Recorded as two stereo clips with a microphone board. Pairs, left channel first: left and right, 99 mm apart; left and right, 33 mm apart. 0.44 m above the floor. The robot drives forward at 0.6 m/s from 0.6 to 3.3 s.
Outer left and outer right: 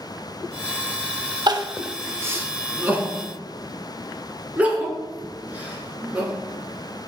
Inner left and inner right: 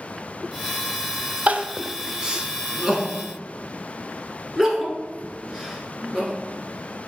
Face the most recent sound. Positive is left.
turn(degrees=-15)  # may be behind; listen again after turning